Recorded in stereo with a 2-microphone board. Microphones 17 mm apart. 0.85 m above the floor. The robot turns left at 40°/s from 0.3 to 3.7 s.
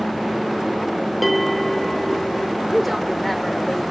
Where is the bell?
Straight behind, 1.7 m; by 2.6 s 130° left, 1.7 m.